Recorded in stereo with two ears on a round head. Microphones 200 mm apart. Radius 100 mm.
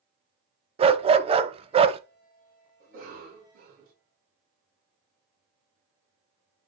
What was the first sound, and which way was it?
A dog barking, 25° right (ahead or behind).